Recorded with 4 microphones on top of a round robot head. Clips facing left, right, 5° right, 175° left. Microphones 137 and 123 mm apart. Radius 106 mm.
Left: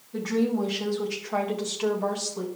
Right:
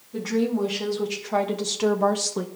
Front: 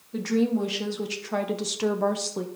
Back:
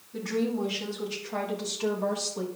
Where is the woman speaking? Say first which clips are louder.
Right 1 dB, front 5 dB; 5° right, 1.9 m; by 2.5 s 60° right, 0.8 m.